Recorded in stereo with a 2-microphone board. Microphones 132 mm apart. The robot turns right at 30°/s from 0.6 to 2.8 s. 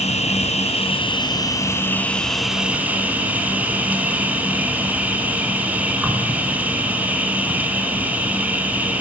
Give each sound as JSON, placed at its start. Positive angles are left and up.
{"t": 0.0, "sound": "an insect", "azimuth_deg": 125, "distance_m": 4.0}